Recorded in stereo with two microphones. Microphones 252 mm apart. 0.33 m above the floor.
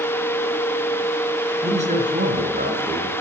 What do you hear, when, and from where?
1.6 s a man speaking: 25° right (ahead or behind), 3.5 m; by 3.2 s 40° right (ahead or behind), 4 m